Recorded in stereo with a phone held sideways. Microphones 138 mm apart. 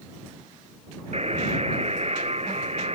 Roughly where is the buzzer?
Right.